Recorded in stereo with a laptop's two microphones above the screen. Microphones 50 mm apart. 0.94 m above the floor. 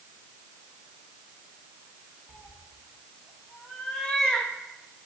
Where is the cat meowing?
15° left (ahead or behind), 1.6 m.